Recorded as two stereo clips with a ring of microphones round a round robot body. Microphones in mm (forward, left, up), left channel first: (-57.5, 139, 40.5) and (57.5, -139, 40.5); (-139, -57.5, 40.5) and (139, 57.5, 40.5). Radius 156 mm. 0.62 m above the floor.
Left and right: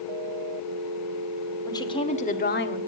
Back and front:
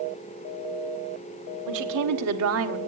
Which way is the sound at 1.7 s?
35° left.